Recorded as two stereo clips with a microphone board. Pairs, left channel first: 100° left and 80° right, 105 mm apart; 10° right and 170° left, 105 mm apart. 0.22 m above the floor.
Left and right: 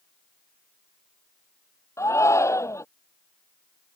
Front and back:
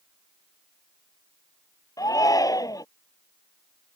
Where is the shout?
40° left.